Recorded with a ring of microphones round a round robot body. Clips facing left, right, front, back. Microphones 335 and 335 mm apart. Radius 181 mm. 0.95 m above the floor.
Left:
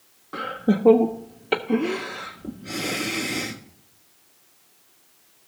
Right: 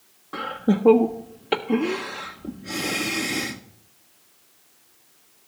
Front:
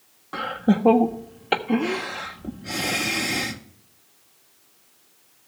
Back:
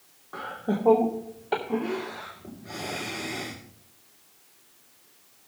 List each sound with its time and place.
0.3 s laughter: 5° right, 0.5 m